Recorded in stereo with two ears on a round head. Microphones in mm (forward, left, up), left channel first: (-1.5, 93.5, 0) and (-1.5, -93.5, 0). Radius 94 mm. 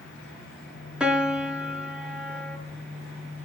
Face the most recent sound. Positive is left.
turn(degrees=-5)  # may be behind; listen again after turning